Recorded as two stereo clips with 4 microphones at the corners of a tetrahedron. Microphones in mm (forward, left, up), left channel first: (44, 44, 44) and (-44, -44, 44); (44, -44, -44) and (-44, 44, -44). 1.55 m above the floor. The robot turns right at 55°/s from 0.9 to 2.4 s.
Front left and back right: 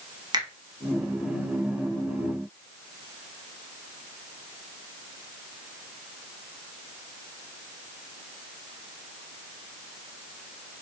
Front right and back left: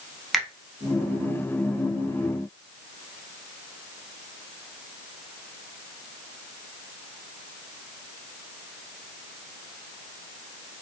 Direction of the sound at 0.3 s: 135° right.